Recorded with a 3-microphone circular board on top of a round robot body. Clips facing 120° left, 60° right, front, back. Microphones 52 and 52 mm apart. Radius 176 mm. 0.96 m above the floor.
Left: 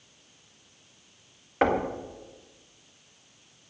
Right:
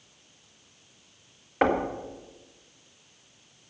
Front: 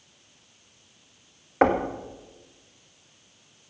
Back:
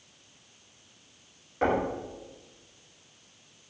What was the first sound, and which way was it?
Knocking, 25° left.